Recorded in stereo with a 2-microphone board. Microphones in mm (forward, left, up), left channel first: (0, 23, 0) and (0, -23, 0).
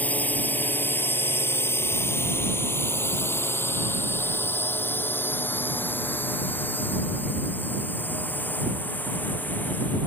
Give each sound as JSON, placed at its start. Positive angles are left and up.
{"t": 0.0, "sound": "a drone", "side_deg": 40}